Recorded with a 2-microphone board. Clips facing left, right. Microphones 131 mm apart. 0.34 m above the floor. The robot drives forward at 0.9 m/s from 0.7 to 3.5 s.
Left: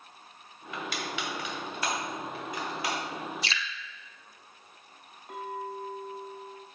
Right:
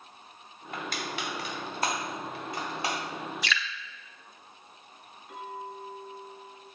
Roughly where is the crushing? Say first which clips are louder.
Even; right.